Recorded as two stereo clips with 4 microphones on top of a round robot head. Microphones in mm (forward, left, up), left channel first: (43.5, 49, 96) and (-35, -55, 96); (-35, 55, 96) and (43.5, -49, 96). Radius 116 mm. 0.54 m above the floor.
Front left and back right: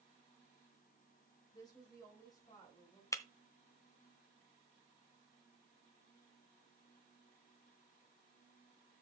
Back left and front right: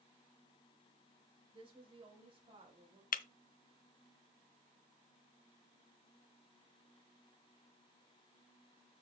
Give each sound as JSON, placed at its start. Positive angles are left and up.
{"t": 1.5, "sound": "a woman speaking", "azimuth_deg": -5, "distance_m": 3.5}
{"t": 3.1, "sound": "breaking glass", "azimuth_deg": 120, "distance_m": 0.6}